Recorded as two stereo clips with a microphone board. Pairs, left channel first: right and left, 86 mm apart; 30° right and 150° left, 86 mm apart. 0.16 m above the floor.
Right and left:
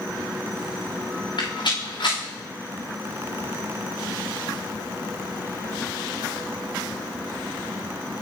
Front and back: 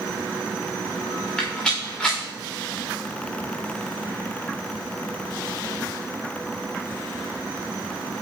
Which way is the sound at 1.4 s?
110° right.